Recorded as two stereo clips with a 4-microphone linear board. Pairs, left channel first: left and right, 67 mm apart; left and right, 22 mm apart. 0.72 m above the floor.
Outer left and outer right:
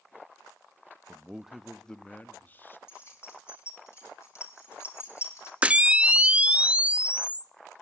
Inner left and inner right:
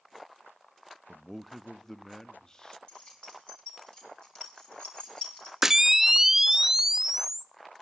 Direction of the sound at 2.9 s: 45° left (ahead or behind).